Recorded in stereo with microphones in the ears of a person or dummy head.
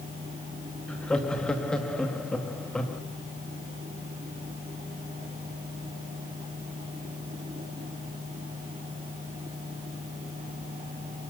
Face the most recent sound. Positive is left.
turn(degrees=5)  # may be behind; listen again after turning